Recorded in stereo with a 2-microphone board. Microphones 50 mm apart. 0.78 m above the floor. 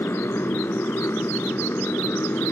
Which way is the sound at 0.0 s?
55° left (ahead or behind).